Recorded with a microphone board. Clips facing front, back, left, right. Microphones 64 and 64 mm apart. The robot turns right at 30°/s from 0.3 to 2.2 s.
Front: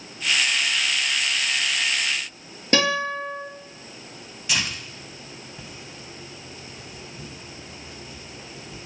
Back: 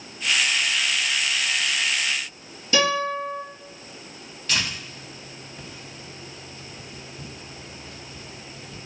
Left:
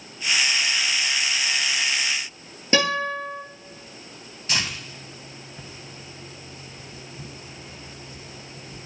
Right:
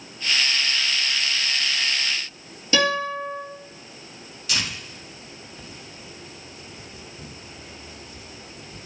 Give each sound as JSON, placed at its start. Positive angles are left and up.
{"t": 2.7, "sound": "a guitar", "azimuth_deg": 40, "distance_m": 4.0}
{"t": 4.5, "sound": "tearing paper", "azimuth_deg": 75, "distance_m": 1.4}